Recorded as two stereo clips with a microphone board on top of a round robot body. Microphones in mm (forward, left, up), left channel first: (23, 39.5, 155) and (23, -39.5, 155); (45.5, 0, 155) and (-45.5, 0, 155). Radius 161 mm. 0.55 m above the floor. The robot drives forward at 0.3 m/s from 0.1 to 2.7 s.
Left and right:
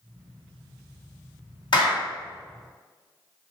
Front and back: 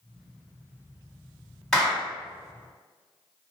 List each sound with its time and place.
1.7 s a clap: 85° left, 1.9 m; by 2.1 s 90° left, 1.9 m